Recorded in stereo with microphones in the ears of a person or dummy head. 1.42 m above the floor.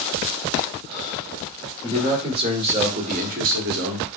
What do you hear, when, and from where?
1.8 s a man speaking: 30° right (ahead or behind), 1.8 m; by 4.1 s 65° right (ahead or behind), 0.7 m